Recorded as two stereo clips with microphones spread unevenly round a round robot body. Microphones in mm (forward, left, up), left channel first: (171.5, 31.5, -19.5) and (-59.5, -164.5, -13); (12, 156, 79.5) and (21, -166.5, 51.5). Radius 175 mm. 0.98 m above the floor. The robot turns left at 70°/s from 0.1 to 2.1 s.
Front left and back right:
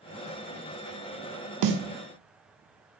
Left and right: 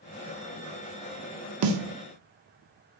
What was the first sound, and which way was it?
A snare drum, 125° right.